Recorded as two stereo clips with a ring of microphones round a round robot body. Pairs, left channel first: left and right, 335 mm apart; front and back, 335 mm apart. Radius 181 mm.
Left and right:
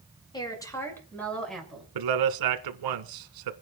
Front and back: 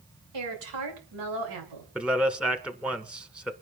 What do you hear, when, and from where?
0.3 s a woman speaking: 165° left, 6.5 m; by 1.9 s straight behind, 7.5 m
1.9 s a man speaking: 95° right, 1.8 m